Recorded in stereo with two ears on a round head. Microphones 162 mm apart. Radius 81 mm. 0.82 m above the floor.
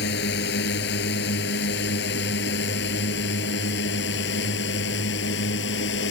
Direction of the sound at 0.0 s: 65° left (ahead or behind).